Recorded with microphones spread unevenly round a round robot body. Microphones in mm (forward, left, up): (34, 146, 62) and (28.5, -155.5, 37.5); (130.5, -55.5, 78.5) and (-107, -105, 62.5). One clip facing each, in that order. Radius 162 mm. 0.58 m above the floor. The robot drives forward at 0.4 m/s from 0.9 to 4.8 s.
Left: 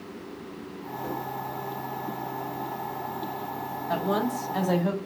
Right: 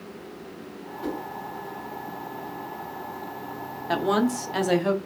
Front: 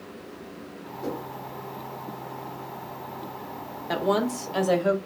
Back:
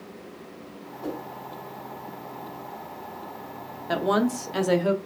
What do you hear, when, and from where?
1.0 s a whoosh: 55° right, 1.7 m
3.9 s a woman speaking: 95° right, 1.0 m; by 5.0 s 120° right, 1.1 m